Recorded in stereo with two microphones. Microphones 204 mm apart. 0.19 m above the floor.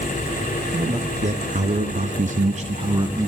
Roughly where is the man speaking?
Right.